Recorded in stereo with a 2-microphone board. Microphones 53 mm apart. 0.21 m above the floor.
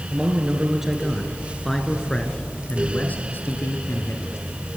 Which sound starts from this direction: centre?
A man speaking, at 0.1 s.